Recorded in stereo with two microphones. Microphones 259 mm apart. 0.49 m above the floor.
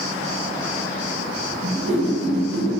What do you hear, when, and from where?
1.6 s a whoosh: 50° right (ahead or behind), 1.4 m